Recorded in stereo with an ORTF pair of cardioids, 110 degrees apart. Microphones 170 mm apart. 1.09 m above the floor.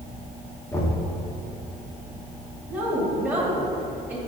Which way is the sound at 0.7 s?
15° left.